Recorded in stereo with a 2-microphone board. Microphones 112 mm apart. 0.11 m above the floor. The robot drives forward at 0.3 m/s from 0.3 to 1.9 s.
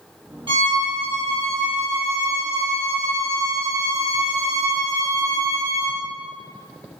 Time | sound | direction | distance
0.5 | a violin | 50° right (ahead or behind) | 2.5 m